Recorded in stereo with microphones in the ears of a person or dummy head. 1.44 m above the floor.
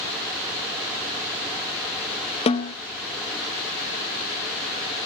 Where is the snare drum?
25° left (ahead or behind), 0.8 m.